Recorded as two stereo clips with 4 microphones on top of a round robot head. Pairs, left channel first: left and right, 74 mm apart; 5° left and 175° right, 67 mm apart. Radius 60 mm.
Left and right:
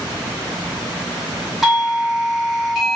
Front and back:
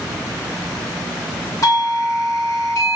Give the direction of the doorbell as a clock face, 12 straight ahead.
12 o'clock.